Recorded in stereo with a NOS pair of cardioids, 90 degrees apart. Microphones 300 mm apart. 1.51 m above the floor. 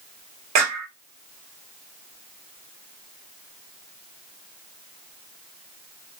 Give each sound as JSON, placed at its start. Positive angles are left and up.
{"t": 0.6, "sound": "a clap", "azimuth_deg": -70, "distance_m": 1.9}